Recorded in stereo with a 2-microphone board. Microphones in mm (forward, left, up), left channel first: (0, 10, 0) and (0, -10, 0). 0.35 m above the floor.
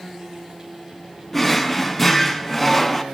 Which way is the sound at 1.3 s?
10° left (ahead or behind).